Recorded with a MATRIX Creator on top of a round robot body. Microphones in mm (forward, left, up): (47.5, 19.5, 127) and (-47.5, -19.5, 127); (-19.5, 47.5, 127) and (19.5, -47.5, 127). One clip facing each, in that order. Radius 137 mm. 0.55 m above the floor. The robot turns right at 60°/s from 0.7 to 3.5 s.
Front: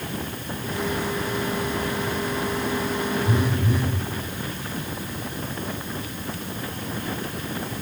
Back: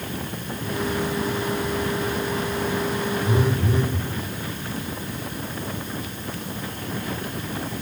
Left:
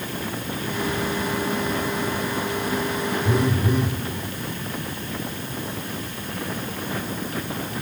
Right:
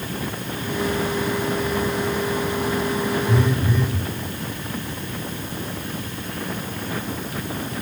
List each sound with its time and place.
3.2 s a phone buzzing: 125° left, 4.5 m; by 4.0 s 140° left, 4.5 m